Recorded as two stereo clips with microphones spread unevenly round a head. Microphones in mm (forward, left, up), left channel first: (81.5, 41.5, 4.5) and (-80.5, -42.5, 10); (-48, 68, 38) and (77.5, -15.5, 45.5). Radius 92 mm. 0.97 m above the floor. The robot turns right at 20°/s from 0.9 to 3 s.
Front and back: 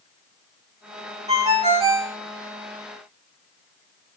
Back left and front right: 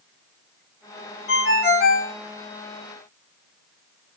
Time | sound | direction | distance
1.3 | a ringtone | 140° left | 1.0 m